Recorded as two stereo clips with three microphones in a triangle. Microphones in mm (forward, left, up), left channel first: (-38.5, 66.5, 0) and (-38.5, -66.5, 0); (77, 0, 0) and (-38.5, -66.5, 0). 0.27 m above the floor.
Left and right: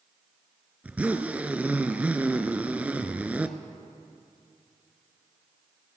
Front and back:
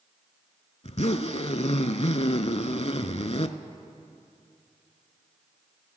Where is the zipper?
10° right, 0.5 m.